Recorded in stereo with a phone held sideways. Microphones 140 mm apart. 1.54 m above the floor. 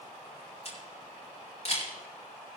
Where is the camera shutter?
50° left (ahead or behind), 4.5 m.